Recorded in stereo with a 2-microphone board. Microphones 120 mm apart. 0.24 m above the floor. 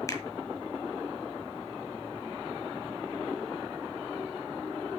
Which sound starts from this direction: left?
A finger snap, at 0.1 s.